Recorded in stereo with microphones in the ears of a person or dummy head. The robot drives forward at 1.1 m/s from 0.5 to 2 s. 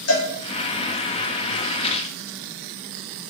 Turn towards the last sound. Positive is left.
turn(degrees=40)  # may be behind; listen again after turning